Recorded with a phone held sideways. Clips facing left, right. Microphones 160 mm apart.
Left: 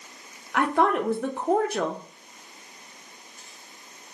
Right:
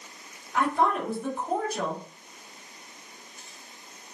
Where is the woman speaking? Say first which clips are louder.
Left 3 dB; 75° left (ahead or behind), 0.9 m.